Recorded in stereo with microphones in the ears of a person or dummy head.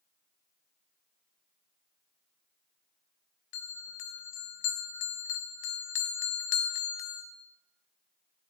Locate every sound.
3.5 s a bell: 55° left (ahead or behind), 0.7 m